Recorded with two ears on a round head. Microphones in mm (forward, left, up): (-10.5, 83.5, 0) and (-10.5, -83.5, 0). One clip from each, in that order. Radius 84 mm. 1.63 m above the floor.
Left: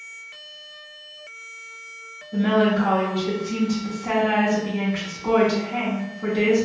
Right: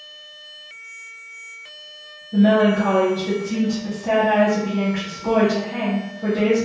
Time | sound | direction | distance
2.3 | a woman speaking | 10° left (ahead or behind) | 0.6 m